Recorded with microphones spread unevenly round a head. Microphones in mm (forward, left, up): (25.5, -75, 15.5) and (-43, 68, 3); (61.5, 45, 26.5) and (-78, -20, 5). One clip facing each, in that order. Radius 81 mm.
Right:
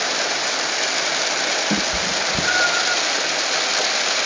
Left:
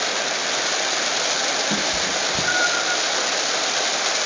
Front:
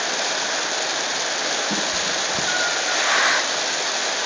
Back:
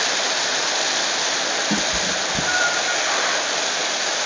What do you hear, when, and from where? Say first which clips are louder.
1.7 s a cat meowing: right 2 dB, back 2 dB; 75° right, 0.6 m